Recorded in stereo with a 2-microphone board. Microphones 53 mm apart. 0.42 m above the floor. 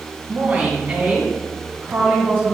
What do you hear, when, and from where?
0.3 s a woman speaking: 40° right (ahead or behind), 3.5 m